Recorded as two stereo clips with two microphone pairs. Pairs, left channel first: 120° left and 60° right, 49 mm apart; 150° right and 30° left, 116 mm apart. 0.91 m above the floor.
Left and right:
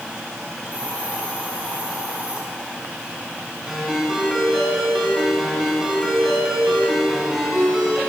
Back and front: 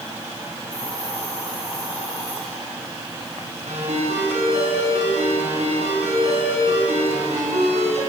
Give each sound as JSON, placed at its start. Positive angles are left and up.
{"t": 0.7, "sound": "a hiss", "azimuth_deg": -120, "distance_m": 8.5}
{"t": 3.7, "sound": "a ringtone", "azimuth_deg": 25, "distance_m": 7.0}